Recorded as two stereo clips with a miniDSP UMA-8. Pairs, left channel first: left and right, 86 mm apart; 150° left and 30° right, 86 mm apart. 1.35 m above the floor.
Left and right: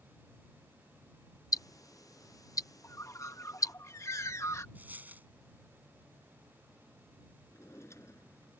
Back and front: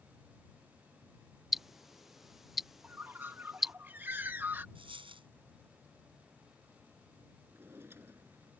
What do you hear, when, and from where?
1.5 s ticking: 55° left
2.8 s a bird: 35° left
4.8 s a dropped coin: 20° right
7.5 s a drawer: 35° left